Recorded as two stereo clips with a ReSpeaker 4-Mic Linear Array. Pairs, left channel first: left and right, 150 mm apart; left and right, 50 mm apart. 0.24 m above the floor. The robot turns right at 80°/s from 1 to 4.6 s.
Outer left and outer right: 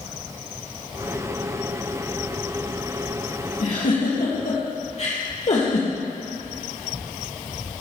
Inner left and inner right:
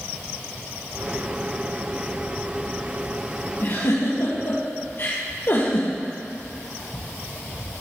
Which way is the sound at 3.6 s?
45° left (ahead or behind).